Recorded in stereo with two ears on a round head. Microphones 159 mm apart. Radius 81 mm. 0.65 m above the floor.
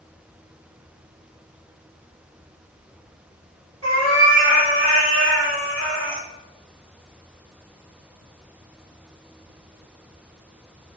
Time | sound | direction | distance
3.8 | a cat meowing | 35° right (ahead or behind) | 1.4 m